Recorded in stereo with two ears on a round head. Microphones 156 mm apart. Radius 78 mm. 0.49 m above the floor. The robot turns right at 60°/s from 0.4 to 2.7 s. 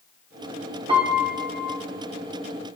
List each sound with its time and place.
0.9 s a piano: 40° right, 0.8 m; by 1.8 s 10° left, 0.8 m